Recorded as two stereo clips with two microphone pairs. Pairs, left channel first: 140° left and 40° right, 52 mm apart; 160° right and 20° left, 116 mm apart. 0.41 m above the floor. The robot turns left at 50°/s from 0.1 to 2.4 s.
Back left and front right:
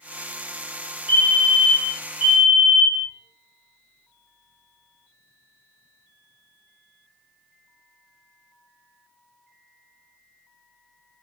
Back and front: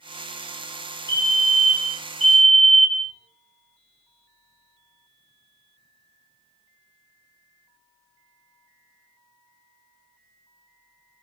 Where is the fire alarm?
15° right, 2 m; by 3.1 s 80° right, 2 m.